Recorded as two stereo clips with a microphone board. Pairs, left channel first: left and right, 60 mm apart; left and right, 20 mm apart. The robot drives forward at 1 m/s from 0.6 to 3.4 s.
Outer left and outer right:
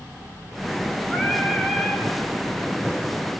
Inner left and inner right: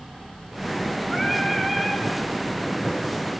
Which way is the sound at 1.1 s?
20° left (ahead or behind).